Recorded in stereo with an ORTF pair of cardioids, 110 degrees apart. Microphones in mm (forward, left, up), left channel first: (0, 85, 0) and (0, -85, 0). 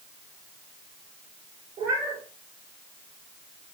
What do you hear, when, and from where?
1.8 s a cat meowing: 50° right, 2.5 m